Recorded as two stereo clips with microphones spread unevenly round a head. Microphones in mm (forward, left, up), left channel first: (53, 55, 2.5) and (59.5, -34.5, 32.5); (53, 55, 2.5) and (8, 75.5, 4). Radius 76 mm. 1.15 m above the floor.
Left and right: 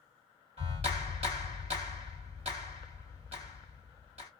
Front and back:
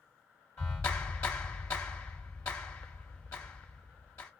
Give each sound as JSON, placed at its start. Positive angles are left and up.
{"t": 0.6, "sound": "a clap", "azimuth_deg": -95, "distance_m": 1.4}